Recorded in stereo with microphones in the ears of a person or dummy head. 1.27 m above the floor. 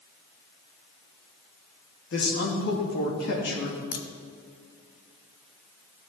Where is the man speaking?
60° left (ahead or behind), 2.5 m.